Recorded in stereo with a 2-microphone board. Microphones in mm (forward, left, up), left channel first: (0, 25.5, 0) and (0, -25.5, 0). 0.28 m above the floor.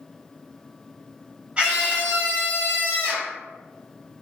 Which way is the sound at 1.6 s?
25° right (ahead or behind).